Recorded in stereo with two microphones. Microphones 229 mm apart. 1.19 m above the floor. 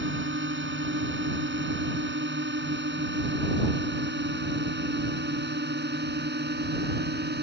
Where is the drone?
50° right (ahead or behind); by 7.4 s 45° right (ahead or behind).